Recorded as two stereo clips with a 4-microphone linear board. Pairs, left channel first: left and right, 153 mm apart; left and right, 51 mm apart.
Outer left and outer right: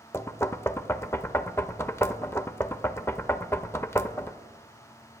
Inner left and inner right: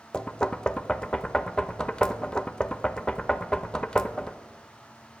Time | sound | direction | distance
0.1 | knocking | 15° left (ahead or behind) | 0.5 m